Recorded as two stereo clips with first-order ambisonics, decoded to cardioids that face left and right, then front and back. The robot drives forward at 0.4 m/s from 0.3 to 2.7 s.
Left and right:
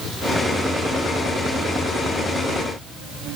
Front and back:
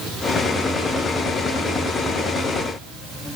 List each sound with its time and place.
Only background noise.